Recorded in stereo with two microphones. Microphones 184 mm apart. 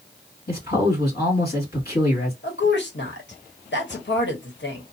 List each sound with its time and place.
0.5 s a man speaking: 55° left (ahead or behind), 2 m
2.4 s a woman speaking: 75° left (ahead or behind), 1.0 m